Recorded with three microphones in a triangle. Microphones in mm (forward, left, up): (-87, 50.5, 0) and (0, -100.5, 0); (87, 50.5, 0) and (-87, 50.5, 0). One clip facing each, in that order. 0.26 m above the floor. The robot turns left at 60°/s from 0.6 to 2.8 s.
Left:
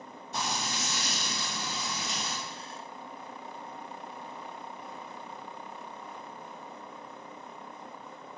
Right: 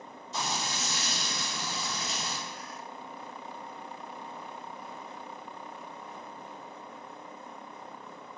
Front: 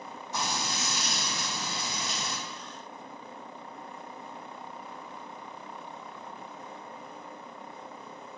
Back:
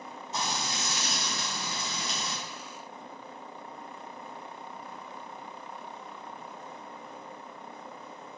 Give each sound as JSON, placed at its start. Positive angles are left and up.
{"t": 0.3, "sound": "frying", "azimuth_deg": 120, "distance_m": 1.4}